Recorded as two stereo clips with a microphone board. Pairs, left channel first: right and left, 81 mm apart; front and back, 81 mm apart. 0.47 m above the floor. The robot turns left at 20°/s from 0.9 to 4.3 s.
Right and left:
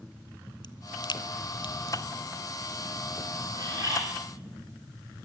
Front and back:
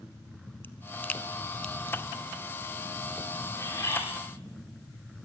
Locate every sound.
0.6 s a crack: 65° right, 1.0 m; by 1.8 s 80° right, 1.0 m
3.6 s a bird: 55° left, 10 m; by 4.0 s 45° left, 10 m